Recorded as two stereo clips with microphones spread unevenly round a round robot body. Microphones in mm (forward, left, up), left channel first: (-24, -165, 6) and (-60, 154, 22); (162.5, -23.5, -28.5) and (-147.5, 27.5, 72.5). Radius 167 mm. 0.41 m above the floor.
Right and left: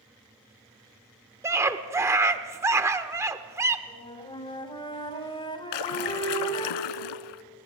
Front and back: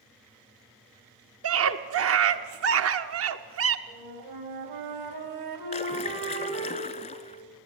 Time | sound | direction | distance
1.4 | a scream | 170° left | 1.0 m
3.9 | a flute | 160° right | 3 m
5.7 | a splash | 85° right | 0.9 m